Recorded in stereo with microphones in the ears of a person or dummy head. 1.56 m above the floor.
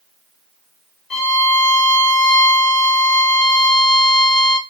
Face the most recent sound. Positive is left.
turn(degrees=5)  # may be behind; listen again after turning